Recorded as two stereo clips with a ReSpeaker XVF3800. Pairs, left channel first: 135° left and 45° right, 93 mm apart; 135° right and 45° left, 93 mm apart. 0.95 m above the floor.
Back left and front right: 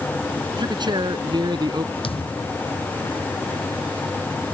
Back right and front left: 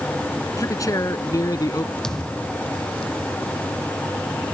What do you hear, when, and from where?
0.6 s a man speaking: 80° right; by 1.9 s 85° right
2.0 s a thud: 140° left